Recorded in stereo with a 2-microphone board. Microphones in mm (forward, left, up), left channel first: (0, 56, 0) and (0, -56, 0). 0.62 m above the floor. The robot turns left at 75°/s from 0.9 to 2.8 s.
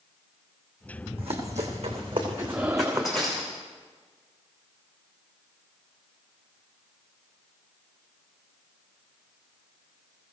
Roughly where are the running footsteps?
Right.